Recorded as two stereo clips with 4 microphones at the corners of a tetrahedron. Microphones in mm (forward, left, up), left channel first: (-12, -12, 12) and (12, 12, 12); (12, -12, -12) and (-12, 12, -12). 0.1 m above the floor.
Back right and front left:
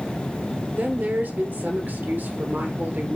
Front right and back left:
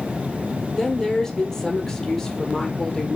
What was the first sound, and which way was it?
A woman speaking, 30° left.